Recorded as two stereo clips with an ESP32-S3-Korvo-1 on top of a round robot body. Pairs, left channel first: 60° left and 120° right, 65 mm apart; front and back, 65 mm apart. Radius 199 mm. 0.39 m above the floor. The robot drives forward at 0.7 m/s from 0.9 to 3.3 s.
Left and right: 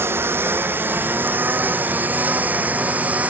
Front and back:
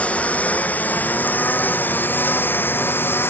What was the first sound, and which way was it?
A lawn mower, 65° right.